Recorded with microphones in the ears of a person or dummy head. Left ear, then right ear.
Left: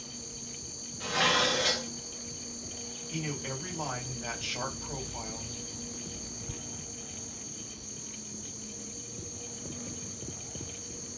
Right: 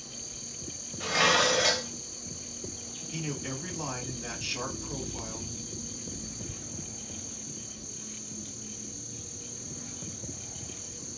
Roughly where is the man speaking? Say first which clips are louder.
Even; left.